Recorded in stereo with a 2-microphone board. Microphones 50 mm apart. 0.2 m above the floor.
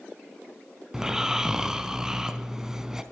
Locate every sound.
0.9 s snoring: 10° right (ahead or behind), 0.8 m